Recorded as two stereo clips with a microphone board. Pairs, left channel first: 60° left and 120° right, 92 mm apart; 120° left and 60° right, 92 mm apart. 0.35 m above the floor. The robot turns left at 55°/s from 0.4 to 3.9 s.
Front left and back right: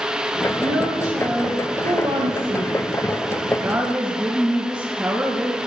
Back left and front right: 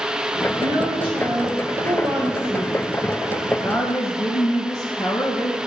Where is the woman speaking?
15° right, 3.5 m; by 5.6 s 165° left, 3.5 m.